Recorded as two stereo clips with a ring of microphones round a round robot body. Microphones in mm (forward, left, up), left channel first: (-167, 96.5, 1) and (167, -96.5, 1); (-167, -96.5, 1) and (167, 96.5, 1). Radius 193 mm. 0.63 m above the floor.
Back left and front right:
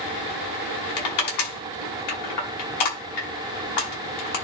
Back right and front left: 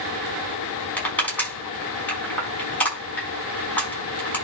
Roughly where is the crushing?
Behind left.